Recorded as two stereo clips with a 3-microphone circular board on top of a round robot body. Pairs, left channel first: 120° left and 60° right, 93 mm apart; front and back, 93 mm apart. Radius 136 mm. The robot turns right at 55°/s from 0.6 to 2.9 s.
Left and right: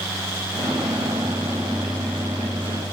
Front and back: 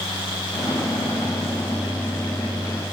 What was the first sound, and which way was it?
Only background noise.